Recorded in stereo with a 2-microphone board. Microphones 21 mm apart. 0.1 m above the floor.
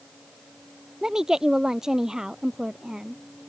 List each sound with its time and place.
1.0 s a woman speaking: 20° right (ahead or behind)